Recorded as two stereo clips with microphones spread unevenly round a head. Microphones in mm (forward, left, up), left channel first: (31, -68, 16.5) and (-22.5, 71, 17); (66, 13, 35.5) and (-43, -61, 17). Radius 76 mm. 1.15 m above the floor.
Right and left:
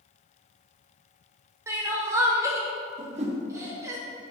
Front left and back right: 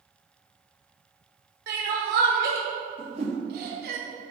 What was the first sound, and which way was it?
Crying, straight behind.